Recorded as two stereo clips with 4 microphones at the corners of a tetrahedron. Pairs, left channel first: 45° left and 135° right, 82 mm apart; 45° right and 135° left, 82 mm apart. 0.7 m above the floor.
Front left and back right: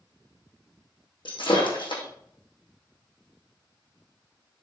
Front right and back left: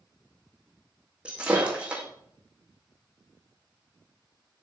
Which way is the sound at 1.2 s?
60° left.